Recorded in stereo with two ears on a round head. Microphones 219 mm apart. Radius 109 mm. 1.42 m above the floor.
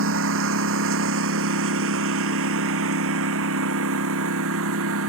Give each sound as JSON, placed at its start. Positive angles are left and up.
{"t": 0.0, "sound": "a lawn mower", "side_deg": -55}